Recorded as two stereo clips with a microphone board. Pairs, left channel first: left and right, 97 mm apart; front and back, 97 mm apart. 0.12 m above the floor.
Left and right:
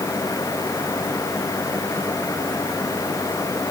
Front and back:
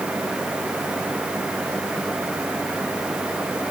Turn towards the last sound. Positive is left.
No sound to turn to.